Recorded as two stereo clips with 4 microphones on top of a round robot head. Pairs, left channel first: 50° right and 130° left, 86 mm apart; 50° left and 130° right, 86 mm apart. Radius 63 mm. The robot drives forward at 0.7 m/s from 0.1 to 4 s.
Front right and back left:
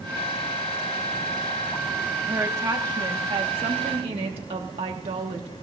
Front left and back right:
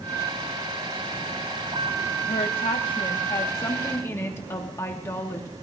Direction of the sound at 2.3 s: 70° left.